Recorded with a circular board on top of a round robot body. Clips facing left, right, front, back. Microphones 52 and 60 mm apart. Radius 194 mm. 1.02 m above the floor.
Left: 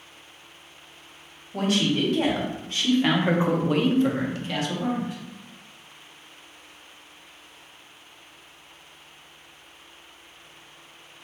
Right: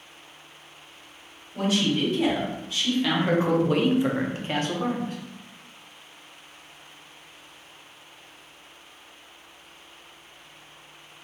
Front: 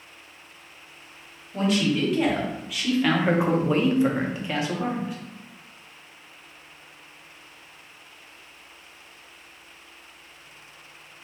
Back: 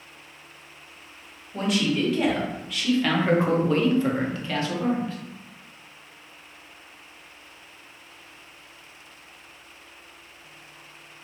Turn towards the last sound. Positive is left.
turn(degrees=-70)